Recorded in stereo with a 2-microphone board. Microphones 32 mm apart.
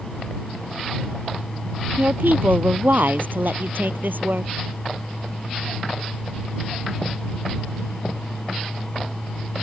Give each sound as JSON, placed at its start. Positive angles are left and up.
{"t": 2.0, "sound": "a woman speaking", "side_deg": -70}